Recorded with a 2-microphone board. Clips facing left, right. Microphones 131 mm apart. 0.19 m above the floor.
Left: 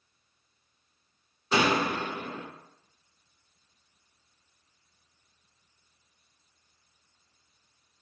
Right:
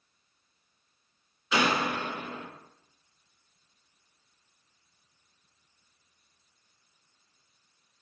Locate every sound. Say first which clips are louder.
1.5 s a door slam: left 2 dB; 40° left (ahead or behind), 1.5 m